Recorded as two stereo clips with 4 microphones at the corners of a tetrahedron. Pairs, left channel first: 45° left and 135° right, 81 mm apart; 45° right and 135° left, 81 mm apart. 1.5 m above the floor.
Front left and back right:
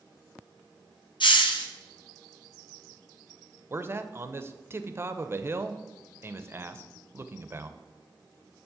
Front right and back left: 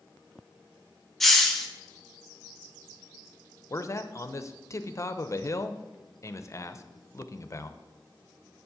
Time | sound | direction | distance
1.2 | a hiss | 40° left | 0.9 m
3.7 | a man speaking | 85° right | 0.6 m